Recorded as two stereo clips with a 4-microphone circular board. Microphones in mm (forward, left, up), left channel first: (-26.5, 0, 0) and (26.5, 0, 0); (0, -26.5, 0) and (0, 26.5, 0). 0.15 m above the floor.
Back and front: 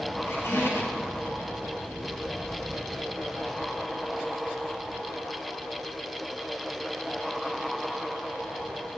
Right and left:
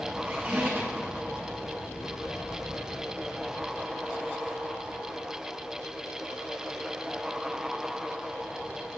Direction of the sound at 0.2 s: 150° left.